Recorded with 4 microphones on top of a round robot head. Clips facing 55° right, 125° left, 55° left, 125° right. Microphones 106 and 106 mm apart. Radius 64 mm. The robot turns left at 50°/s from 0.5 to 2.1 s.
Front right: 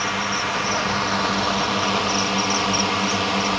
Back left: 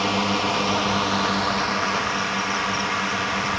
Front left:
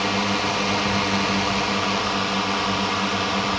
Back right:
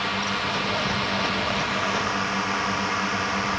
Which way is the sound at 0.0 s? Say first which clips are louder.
Back left 2 dB, front left 4 dB; 75° left.